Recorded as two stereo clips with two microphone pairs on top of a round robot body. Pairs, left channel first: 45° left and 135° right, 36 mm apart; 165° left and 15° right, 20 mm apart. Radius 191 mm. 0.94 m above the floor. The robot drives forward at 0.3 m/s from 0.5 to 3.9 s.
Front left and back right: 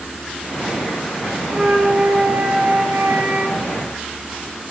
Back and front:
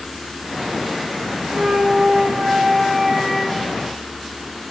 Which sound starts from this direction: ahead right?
A flute, at 1.5 s.